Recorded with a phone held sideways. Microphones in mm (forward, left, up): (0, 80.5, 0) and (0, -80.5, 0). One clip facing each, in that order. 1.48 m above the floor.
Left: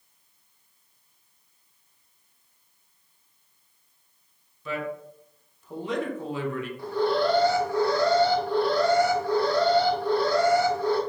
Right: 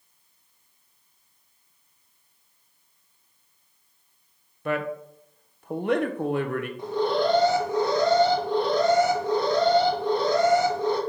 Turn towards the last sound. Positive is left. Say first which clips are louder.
# even
turn(degrees=-20)  # may be behind; listen again after turning